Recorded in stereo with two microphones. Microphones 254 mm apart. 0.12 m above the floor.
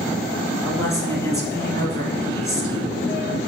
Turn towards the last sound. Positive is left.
turn(degrees=10)  # may be behind; listen again after turning